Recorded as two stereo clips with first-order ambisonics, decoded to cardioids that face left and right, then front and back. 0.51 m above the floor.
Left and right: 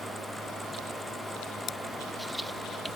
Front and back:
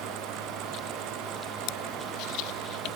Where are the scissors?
25° left.